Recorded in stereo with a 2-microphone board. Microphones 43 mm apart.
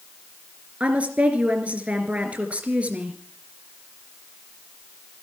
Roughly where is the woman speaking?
Right.